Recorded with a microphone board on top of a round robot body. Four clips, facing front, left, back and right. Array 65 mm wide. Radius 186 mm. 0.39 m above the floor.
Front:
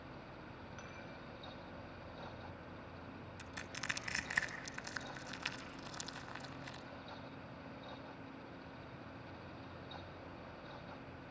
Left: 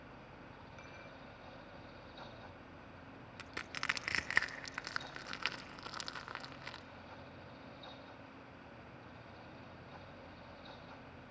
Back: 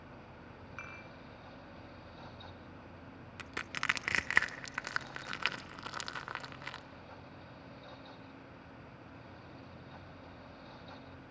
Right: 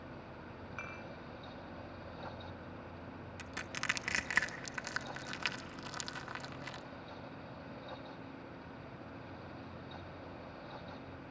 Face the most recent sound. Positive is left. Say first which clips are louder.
# right 1 dB, back 9 dB
turn(degrees=175)